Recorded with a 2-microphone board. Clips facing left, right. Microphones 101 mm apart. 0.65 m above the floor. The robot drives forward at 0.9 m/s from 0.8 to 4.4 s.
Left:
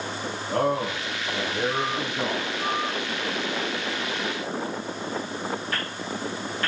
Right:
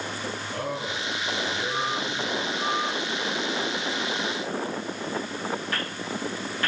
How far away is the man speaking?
About 4 m.